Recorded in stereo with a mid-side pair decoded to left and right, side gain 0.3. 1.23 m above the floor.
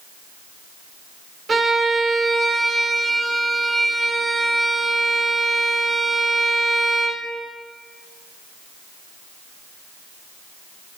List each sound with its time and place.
1.5 s a violin: 55° right, 2.5 m